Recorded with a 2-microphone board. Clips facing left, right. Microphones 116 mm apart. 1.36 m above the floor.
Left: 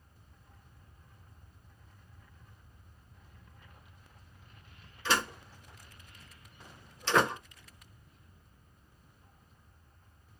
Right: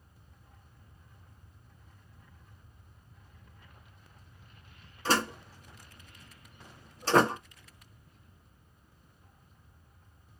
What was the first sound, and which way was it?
A door slam, 40° right (ahead or behind).